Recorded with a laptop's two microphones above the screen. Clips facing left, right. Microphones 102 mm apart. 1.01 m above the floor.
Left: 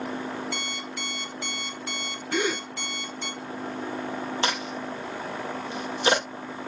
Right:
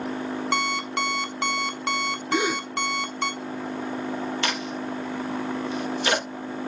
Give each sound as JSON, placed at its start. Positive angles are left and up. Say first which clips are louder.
{"t": 0.5, "sound": "an alarm clock", "louder": "right 9 dB", "side_deg": -75, "distance_m": 1.4}
{"t": 2.3, "sound": "a gasp", "louder": "right 2 dB", "side_deg": -10, "distance_m": 4.5}
{"t": 4.4, "sound": "a crack", "louder": "right 1 dB", "side_deg": 30, "distance_m": 5.5}